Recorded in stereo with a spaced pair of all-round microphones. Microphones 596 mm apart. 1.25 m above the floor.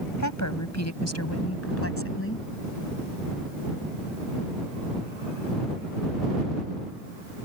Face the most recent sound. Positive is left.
turn(degrees=20)  # may be behind; listen again after turning